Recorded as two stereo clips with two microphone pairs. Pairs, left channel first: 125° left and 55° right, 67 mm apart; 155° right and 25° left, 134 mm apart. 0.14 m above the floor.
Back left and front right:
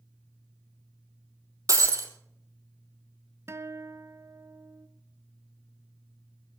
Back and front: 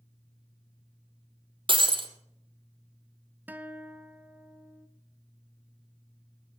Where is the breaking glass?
25° right, 1.7 m.